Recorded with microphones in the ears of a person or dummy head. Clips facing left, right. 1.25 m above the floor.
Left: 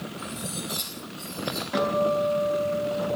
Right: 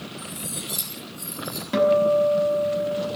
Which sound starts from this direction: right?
A guitar, at 1.7 s.